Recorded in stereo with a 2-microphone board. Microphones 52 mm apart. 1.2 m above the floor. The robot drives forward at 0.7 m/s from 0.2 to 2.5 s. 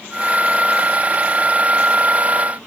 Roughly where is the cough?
No cough in this recording.